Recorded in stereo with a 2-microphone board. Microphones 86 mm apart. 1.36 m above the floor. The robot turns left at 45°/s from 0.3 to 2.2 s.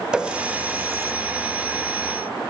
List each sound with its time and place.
0.1 s a running tap: 10° right (ahead or behind), 0.6 m; by 1.1 s 30° right (ahead or behind), 0.6 m